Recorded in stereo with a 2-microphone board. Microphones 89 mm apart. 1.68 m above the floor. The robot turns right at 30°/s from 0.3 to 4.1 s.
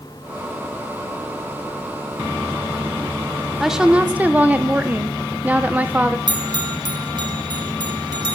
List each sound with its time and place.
3.6 s a woman speaking: centre (ahead or behind), 1.2 m; by 6.2 s 15° right (ahead or behind), 1.2 m
6.3 s a bell: 50° right (ahead or behind), 1.7 m